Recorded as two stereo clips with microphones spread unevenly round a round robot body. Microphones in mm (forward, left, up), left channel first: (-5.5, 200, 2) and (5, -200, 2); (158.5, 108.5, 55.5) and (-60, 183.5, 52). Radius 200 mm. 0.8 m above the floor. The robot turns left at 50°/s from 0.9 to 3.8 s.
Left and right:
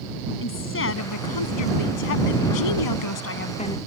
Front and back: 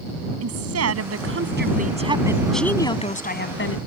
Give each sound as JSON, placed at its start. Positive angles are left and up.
{"t": 0.4, "sound": "a woman speaking", "azimuth_deg": 150}